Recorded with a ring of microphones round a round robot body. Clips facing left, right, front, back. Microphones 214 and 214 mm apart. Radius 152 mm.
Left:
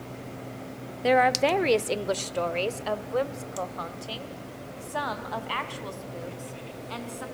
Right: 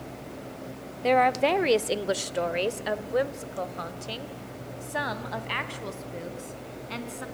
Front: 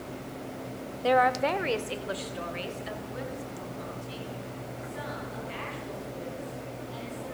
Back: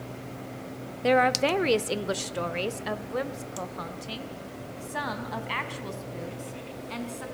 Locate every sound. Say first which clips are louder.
1.0 s a woman speaking: even, back 2 dB; 155° left, 0.9 m; by 7.2 s 155° right, 4 m